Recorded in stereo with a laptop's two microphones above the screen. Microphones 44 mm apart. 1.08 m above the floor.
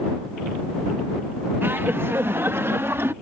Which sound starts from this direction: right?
Laughter, at 1.6 s.